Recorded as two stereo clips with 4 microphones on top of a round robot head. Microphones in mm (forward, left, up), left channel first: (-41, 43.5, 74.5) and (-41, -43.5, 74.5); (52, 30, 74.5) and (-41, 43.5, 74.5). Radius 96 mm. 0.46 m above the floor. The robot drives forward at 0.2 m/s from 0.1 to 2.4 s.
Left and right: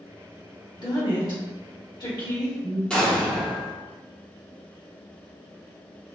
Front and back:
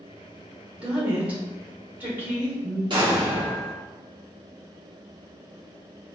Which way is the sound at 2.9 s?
165° left.